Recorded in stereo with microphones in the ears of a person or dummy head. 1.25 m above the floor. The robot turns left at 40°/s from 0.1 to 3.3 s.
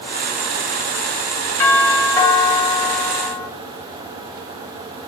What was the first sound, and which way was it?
A doorbell, 10° left (ahead or behind).